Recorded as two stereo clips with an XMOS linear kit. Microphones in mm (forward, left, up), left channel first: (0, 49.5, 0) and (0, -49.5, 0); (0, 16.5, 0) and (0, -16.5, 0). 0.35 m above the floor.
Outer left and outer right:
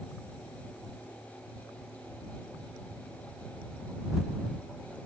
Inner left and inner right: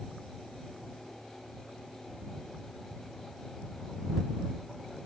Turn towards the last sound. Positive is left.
No sound to turn to.